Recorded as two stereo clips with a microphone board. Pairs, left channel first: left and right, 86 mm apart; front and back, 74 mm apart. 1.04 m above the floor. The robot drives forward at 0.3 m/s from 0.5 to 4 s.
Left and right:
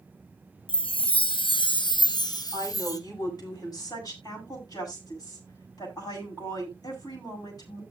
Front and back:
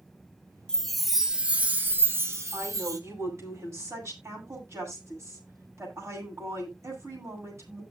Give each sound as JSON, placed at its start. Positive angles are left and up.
{"t": 0.7, "sound": "a chime", "azimuth_deg": 80, "distance_m": 0.5}
{"t": 2.5, "sound": "a woman speaking", "azimuth_deg": 130, "distance_m": 7.5}